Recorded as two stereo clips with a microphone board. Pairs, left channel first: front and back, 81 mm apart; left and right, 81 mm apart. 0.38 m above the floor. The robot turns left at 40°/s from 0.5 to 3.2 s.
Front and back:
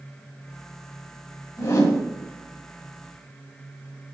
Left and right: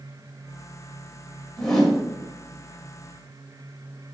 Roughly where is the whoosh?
Ahead.